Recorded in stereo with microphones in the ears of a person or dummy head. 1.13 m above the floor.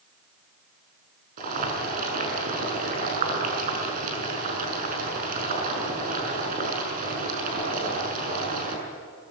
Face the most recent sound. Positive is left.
turn(degrees=-50)  # may be behind; listen again after turning